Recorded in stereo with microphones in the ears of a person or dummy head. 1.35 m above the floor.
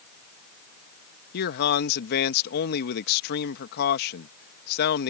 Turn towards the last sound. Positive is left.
turn(degrees=55)  # may be behind; listen again after turning